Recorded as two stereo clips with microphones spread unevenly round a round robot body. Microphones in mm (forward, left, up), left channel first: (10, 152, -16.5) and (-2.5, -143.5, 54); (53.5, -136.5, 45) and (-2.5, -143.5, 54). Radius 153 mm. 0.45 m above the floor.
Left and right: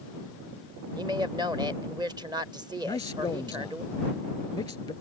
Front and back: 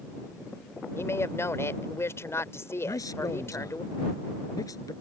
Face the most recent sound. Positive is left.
turn(degrees=10)